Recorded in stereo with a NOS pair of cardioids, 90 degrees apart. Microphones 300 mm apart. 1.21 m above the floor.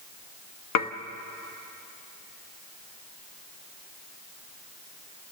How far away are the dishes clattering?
About 1.3 m.